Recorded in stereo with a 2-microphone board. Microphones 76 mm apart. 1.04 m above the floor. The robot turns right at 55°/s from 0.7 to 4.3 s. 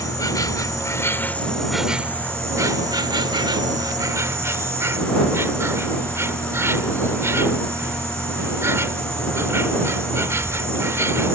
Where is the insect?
125° left; by 11.4 s 40° right.